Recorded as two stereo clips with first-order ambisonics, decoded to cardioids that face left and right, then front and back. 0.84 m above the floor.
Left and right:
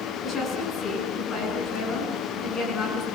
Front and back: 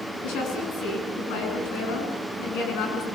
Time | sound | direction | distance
0.2 | a woman speaking | 20° left | 9.5 m